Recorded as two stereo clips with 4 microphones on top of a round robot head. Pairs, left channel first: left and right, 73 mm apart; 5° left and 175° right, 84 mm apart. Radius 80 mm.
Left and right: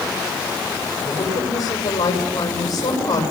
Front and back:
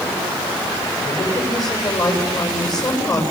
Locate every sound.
1.1 s a woman speaking: 50° left, 8.5 m